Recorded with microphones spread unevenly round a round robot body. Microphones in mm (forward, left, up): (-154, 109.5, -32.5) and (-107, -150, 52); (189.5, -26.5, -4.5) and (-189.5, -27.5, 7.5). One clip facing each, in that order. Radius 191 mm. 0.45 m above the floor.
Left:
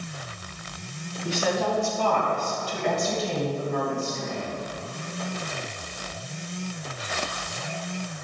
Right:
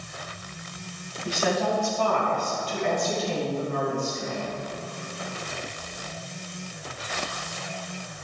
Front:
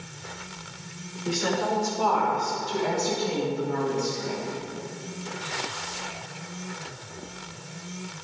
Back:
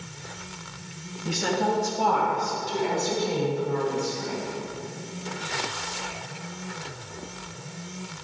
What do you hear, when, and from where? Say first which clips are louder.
1.2 s a woman speaking: even, back 1 dB; 140° left, 3.5 m; by 4.4 s 50° left, 3.5 m